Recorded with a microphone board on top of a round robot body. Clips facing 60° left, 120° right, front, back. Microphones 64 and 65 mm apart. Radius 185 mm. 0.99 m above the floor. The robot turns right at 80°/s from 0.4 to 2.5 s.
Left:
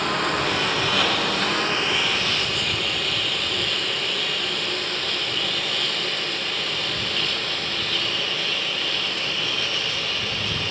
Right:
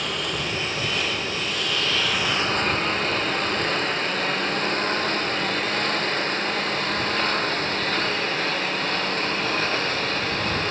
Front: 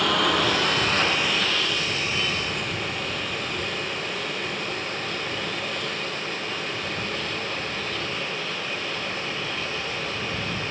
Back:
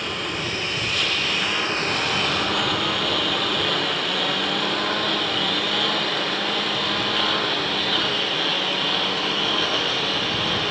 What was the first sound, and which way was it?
A lawn mower, 10° left.